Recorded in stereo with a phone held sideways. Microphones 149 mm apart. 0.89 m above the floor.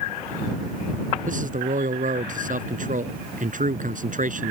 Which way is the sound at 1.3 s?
55° right (ahead or behind).